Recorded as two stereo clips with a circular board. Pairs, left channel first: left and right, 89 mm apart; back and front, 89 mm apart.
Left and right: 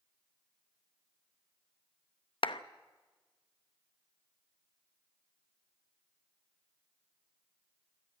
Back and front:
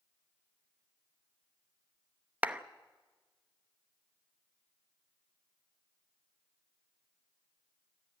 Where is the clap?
75° left, 0.8 m.